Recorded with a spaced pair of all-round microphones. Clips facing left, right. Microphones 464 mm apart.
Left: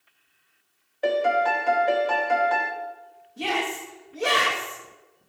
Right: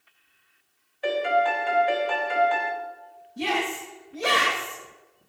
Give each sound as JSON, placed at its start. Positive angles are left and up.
{"t": 1.0, "sound": "a piano", "side_deg": 65, "distance_m": 0.8}
{"t": 3.4, "sound": "a shout", "side_deg": -45, "distance_m": 2.0}